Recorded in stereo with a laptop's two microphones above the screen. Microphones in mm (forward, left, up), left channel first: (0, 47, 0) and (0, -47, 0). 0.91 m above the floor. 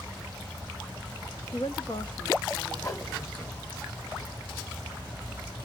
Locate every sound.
1.5 s a woman speaking: 65° left (ahead or behind), 1.1 m; by 3.8 s 30° left (ahead or behind), 3 m
2.8 s a whoosh: 40° left (ahead or behind), 3.5 m